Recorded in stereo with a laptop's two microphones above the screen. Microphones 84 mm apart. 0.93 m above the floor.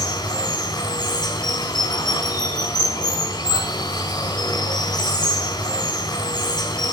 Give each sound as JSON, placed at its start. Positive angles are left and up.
{"t": 0.0, "sound": "running water", "side_deg": 50, "distance_m": 3.5}